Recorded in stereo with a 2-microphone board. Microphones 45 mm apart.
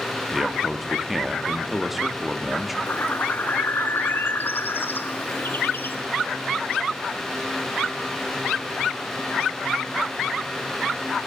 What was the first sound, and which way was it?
A man speaking, 5° right (ahead or behind).